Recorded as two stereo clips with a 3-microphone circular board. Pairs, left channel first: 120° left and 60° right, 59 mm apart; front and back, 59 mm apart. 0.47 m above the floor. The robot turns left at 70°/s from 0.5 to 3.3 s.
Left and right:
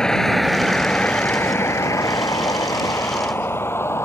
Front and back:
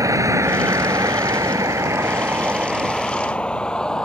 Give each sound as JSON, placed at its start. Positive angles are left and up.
{"t": 0.0, "sound": "a vehicle", "azimuth_deg": -165}